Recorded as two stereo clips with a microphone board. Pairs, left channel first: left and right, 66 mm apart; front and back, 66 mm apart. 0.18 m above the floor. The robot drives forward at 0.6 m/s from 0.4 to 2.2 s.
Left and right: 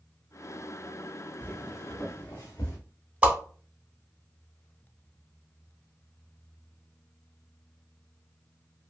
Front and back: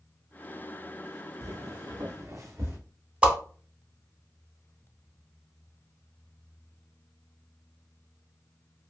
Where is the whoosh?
130° right, 0.9 m.